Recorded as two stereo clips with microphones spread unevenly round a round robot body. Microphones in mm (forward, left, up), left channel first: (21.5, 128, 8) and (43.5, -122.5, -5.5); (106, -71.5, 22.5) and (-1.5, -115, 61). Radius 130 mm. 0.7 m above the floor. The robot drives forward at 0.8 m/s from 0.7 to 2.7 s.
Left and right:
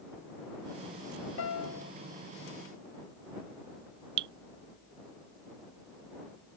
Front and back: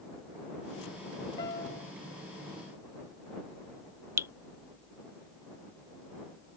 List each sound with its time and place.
1.4 s a piano: 70° left; by 1.9 s 80° left
4.2 s dripping: 95° right